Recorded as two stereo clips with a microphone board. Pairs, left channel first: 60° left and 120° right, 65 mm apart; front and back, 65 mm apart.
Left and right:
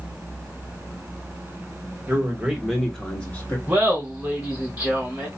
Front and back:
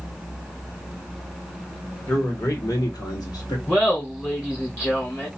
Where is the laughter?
50° right, 1.4 m.